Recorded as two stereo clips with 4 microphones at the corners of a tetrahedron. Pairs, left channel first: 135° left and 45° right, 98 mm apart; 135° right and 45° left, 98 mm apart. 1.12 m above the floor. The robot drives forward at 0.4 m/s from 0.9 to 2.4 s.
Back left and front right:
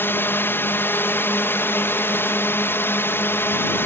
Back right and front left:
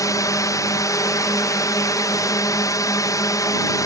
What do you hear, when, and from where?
0.0 s a drone: 170° right